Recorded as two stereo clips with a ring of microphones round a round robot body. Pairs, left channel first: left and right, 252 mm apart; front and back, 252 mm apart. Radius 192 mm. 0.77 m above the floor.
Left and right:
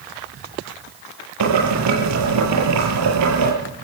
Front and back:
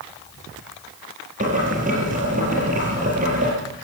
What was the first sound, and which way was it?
Boiling, 110° right.